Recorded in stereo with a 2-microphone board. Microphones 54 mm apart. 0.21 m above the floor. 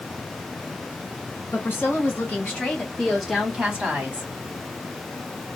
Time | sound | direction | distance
1.5 | a woman speaking | 45° left (ahead or behind) | 2.0 m